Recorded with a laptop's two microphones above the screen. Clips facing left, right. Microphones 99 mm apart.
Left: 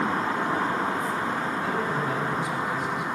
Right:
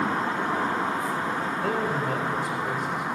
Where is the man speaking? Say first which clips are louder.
Right 1 dB; 60° right (ahead or behind), 4.5 m; by 3.0 s 45° right (ahead or behind), 4.5 m.